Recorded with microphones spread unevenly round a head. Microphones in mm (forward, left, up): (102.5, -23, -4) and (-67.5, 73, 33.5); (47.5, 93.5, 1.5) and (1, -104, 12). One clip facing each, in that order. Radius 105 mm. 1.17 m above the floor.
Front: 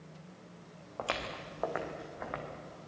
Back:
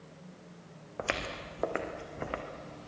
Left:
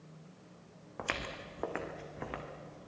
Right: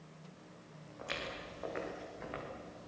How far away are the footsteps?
About 3 m.